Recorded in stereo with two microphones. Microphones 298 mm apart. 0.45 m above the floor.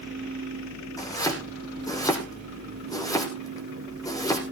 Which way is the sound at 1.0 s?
10° left (ahead or behind).